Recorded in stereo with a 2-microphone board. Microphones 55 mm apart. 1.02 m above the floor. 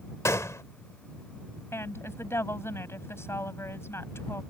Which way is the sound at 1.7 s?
50° left (ahead or behind).